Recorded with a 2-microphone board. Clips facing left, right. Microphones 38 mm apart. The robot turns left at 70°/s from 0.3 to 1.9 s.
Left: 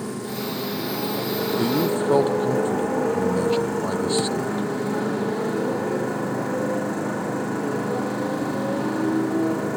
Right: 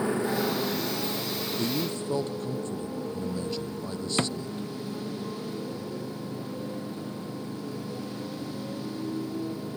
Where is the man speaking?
25° left (ahead or behind); by 4.7 s 45° left (ahead or behind).